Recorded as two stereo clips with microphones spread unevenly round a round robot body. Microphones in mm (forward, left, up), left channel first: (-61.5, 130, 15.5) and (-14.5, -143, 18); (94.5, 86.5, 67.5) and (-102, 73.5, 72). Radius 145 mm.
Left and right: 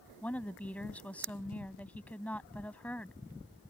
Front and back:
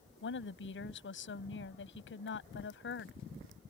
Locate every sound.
0.2 s a woman speaking: 15° left